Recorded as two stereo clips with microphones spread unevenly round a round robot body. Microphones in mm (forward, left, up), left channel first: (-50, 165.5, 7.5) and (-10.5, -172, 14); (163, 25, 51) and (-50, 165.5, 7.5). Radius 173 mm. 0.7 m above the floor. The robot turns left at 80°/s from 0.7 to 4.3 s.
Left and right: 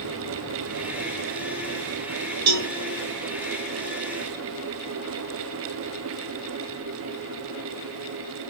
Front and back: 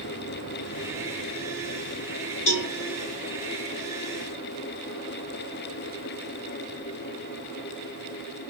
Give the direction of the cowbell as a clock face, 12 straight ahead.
2 o'clock.